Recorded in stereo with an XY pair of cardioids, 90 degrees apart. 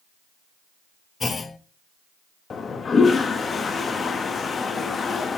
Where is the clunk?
40° left, 1.0 m.